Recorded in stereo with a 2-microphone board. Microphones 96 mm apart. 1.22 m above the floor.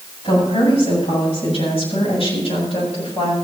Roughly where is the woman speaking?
Left.